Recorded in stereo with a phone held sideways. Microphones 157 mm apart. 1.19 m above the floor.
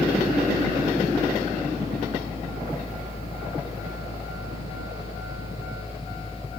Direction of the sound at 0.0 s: 35° left (ahead or behind).